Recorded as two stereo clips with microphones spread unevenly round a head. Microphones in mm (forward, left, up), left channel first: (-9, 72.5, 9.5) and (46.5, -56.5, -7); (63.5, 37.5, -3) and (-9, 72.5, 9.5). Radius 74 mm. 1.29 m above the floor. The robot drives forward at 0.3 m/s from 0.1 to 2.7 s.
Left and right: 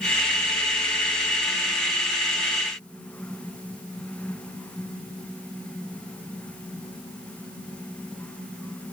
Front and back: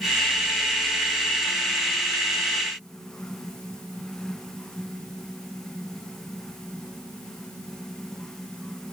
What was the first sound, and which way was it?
Only background noise.